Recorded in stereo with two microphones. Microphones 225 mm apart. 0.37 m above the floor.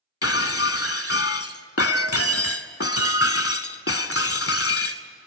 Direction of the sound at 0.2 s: 85° left.